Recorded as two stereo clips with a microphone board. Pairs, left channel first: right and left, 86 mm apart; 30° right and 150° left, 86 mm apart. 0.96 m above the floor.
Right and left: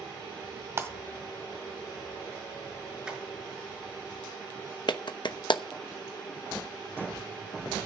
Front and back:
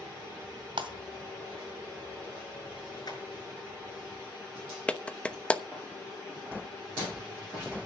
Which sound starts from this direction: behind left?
Breaking glass, at 0.8 s.